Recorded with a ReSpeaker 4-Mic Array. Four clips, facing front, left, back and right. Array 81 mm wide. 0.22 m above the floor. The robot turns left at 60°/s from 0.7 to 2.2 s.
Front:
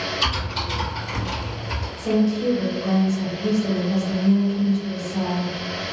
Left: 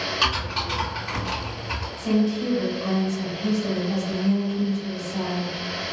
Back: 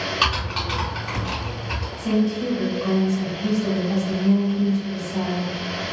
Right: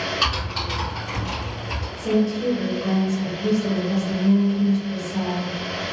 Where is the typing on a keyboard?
170° left, 1.8 m; by 1.9 s 100° left, 1.8 m.